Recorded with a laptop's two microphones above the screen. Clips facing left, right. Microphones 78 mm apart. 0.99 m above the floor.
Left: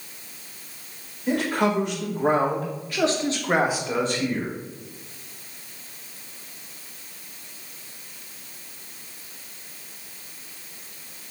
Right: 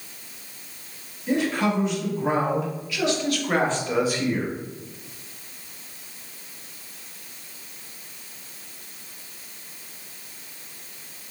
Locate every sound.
1.3 s a man speaking: 75° left (ahead or behind), 2 m; by 4.5 s 25° right (ahead or behind), 1.1 m